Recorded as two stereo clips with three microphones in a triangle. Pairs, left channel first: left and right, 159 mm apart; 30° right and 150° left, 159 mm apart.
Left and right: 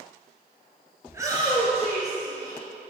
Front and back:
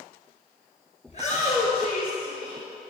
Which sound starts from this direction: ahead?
A shout, at 1.1 s.